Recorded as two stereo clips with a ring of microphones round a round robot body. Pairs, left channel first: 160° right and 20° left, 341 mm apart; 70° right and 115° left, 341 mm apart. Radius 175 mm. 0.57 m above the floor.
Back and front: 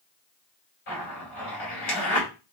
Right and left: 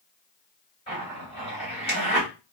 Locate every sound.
0.9 s a zipper: 140° right, 2 m